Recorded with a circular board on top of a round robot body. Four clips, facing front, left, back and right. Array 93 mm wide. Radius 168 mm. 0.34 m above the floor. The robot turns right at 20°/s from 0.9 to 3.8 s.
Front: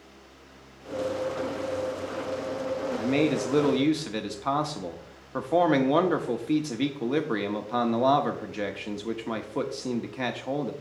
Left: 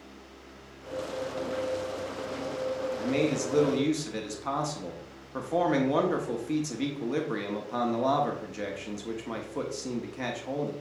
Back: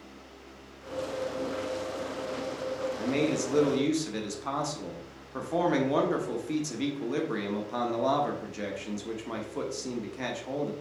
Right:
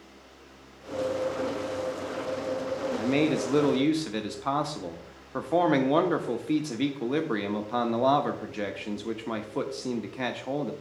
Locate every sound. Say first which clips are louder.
3.0 s a man speaking: right 3 dB, front 4 dB; 50° right, 1.4 m; by 10.7 s 35° right, 1.4 m